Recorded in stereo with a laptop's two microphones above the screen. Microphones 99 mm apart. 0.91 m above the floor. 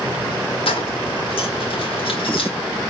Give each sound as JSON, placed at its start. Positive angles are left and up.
{"t": 0.7, "sound": "keys jangling", "side_deg": 65, "distance_m": 1.8}